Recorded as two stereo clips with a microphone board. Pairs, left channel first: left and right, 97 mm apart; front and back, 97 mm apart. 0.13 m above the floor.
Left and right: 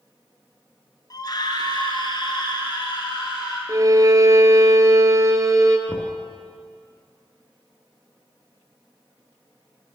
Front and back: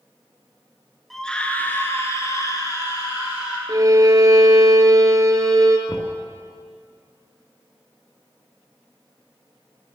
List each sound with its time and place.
1.1 s a scream: 90° left, 1.3 m; by 3.6 s 50° left, 3.5 m
3.7 s a violin: 135° right, 0.9 m
5.9 s knocking: 30° left, 1.5 m